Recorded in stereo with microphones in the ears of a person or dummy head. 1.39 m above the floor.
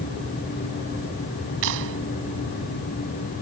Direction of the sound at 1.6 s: 65° right (ahead or behind).